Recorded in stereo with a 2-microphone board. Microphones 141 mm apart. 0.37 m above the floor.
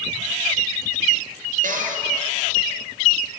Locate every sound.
1.6 s a cupboard door: 70° right (ahead or behind), 3.5 m